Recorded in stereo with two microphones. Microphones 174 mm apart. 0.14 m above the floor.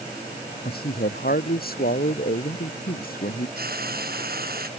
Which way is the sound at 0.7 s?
70° left (ahead or behind).